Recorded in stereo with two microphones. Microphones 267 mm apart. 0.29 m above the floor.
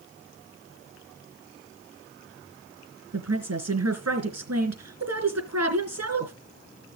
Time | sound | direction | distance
3.1 | a woman speaking | 65° right (ahead or behind) | 3.5 m